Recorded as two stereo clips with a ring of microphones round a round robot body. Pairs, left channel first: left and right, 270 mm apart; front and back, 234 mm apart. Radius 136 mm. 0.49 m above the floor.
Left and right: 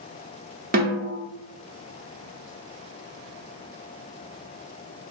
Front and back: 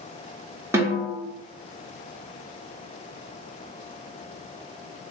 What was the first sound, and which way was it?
A snare drum, 110° right.